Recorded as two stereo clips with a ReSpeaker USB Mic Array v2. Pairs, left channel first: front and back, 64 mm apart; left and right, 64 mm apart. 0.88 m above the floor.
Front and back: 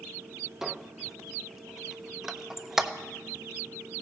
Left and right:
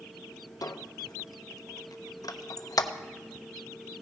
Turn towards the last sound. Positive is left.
turn(degrees=95)